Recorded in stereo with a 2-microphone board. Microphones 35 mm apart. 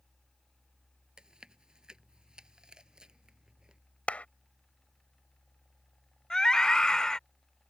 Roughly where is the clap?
Left.